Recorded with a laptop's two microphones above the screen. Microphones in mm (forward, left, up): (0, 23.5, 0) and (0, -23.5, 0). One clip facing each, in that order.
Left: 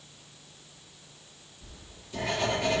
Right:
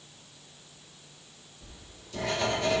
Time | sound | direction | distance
1.6 | writing | 25° left (ahead or behind) | 4 m